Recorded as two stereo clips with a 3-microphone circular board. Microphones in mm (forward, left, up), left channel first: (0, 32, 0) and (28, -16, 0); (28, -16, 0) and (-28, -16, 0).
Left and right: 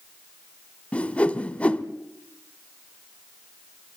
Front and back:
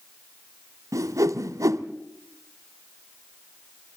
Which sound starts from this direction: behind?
A whoosh, at 0.9 s.